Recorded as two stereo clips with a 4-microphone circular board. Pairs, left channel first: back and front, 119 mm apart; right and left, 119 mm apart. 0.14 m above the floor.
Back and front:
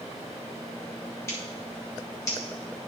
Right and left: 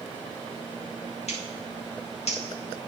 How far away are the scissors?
About 5.5 m.